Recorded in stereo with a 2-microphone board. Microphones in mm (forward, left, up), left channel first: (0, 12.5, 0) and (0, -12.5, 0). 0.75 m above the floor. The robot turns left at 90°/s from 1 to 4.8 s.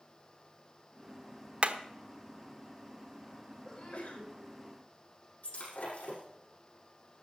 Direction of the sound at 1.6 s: 45° right (ahead or behind).